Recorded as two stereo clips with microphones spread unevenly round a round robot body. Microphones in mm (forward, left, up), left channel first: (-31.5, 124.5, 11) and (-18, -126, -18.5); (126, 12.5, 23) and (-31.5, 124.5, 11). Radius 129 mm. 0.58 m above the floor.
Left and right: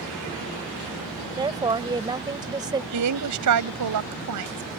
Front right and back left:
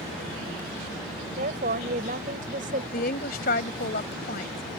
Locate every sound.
1.4 s a woman speaking: 160° right
2.9 s a woman speaking: 90° right